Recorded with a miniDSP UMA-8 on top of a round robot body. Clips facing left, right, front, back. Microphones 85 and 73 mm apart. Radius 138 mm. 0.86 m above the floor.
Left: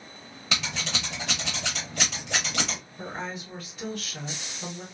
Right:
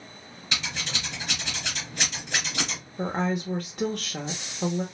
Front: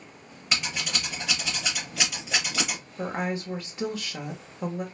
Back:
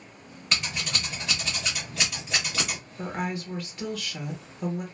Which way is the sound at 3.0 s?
65° right.